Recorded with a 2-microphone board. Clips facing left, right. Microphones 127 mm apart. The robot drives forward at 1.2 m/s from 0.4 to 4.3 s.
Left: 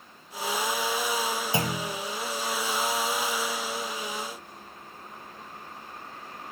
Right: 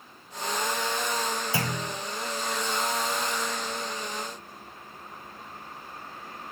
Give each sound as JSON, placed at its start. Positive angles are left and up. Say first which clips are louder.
{"t": 1.5, "sound": "a clunk", "louder": "left 2 dB", "side_deg": 20, "distance_m": 1.3}